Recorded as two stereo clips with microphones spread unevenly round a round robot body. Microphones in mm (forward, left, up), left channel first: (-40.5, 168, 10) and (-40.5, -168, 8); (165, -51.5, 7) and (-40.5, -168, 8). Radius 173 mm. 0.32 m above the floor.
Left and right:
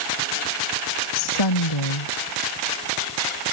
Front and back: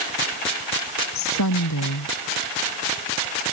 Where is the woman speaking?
65° left.